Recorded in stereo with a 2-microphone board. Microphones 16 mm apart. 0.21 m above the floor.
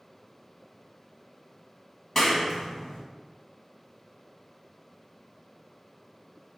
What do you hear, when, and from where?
2.1 s a clap: 30° left (ahead or behind), 1.3 m